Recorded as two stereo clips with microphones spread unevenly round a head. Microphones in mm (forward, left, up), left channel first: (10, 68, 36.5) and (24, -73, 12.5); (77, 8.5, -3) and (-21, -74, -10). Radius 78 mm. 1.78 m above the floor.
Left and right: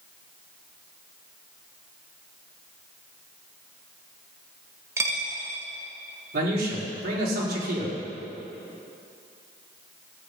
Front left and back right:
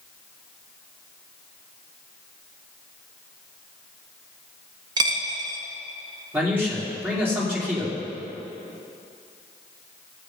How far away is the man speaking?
About 4 m.